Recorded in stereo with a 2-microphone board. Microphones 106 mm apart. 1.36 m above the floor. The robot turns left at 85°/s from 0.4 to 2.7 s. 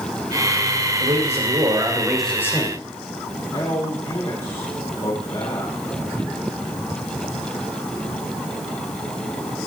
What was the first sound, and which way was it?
A man speaking, 80° right.